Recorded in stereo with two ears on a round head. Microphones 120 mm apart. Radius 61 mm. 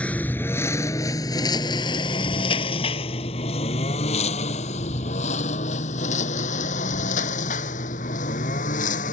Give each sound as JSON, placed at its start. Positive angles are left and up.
{"t": 0.0, "sound": "a lawn mower", "side_deg": 10}